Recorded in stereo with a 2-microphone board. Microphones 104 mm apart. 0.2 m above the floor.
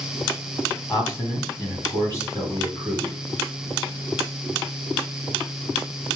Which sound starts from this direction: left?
A man speaking, at 0.9 s.